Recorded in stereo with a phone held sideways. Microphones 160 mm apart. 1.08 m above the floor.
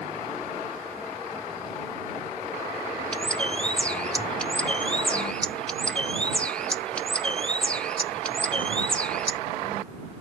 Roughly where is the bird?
Centre.